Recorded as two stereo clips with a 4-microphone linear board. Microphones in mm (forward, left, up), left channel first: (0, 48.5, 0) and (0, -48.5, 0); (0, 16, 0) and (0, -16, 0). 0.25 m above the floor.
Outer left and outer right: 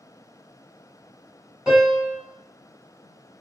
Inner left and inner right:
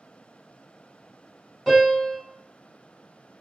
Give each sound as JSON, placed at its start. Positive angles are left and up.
{"t": 1.7, "sound": "a piano", "side_deg": -5, "distance_m": 1.3}